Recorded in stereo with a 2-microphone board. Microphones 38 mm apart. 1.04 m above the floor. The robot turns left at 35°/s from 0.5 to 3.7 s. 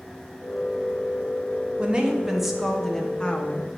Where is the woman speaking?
150° right, 0.9 m; by 3.7 s 145° left, 0.9 m.